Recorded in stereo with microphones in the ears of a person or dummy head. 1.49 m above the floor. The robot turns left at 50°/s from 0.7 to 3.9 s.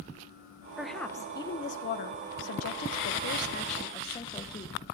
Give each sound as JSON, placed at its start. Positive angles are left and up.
{"t": 0.8, "sound": "a woman speaking", "azimuth_deg": 180, "distance_m": 1.0}